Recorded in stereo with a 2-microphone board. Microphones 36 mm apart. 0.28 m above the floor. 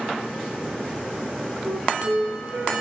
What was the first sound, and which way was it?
A flute, 60° right (ahead or behind).